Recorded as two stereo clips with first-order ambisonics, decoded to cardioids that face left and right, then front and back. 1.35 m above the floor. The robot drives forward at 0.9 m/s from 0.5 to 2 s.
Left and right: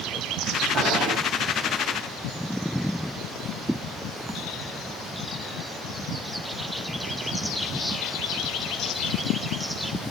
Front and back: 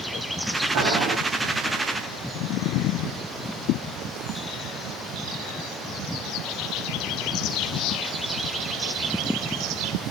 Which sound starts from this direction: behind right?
Boiling, at 0.7 s.